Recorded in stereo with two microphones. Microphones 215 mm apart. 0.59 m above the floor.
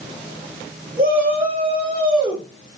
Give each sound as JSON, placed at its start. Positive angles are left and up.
{"t": 1.0, "sound": "a shout", "side_deg": -40, "distance_m": 3.0}